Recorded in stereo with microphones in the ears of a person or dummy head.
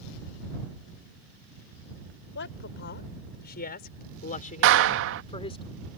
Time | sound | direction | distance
2.4 | a woman speaking | 60° left (ahead or behind) | ?
4.6 | a clap | 70° right (ahead or behind) | ?